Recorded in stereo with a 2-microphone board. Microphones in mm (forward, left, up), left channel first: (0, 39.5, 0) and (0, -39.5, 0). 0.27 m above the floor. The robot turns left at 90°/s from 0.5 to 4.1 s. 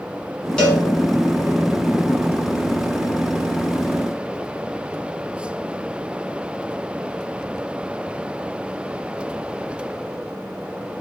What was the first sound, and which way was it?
A cowbell, 10° left (ahead or behind).